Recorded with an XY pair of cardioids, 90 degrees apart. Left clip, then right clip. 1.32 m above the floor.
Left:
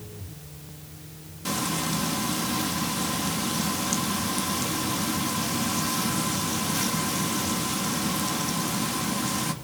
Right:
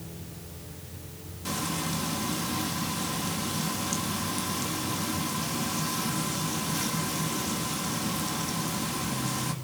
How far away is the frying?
About 2.5 m.